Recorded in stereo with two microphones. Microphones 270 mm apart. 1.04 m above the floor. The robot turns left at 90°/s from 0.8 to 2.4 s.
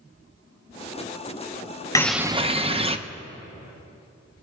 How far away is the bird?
About 0.6 m.